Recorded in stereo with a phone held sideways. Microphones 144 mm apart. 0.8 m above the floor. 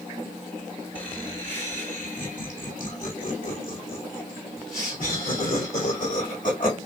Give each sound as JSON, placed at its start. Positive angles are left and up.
{"t": 0.9, "sound": "laughter", "side_deg": 40, "distance_m": 1.2}